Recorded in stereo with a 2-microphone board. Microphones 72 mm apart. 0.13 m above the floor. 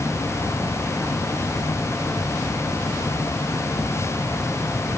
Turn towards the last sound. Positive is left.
No sound to turn to.